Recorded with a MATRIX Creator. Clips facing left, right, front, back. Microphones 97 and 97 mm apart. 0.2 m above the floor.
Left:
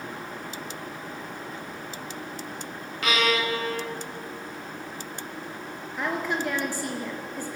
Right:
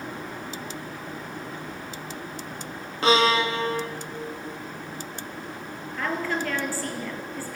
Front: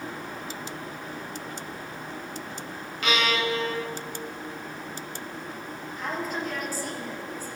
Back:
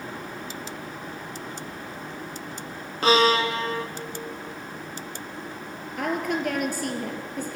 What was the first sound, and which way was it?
A violin, 140° right.